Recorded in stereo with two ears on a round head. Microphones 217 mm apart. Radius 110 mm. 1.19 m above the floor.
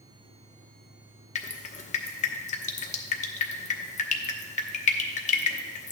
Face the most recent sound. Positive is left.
turn(degrees=30)  # may be behind; listen again after turning